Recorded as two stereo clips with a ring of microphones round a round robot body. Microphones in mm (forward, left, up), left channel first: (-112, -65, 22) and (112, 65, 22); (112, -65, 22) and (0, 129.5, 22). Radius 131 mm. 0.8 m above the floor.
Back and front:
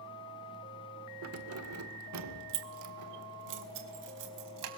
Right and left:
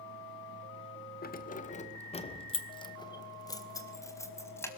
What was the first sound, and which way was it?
Keys jangling, 10° right.